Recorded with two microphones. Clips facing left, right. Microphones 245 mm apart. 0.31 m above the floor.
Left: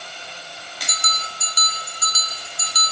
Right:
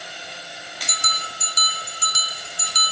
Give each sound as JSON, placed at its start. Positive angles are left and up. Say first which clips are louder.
{"t": 0.9, "sound": "a bell", "louder": "left 1 dB", "side_deg": -30, "distance_m": 0.8}